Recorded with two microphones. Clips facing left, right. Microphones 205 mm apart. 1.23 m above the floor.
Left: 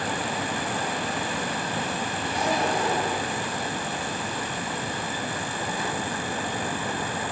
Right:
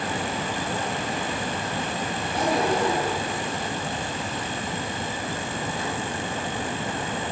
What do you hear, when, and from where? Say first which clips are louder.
2.2 s a zipper: right 3 dB; 55° right (ahead or behind), 8.5 m